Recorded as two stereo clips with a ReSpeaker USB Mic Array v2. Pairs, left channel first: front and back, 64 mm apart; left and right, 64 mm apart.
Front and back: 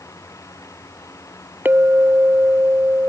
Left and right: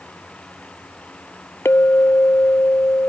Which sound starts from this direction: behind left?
A clink, at 1.6 s.